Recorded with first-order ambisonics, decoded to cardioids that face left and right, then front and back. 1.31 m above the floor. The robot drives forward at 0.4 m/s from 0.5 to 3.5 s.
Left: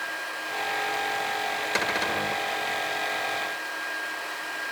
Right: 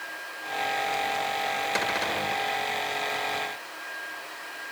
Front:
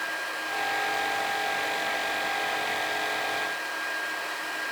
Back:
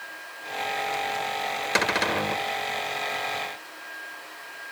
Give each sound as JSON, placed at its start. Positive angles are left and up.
{"t": 1.8, "sound": "a cupboard door", "azimuth_deg": 170}